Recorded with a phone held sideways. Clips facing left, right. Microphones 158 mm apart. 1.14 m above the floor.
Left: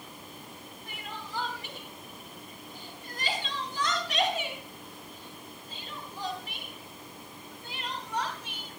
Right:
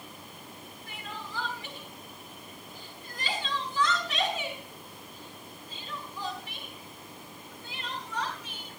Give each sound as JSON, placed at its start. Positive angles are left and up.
{"t": 0.9, "sound": "crying", "side_deg": 40, "distance_m": 6.0}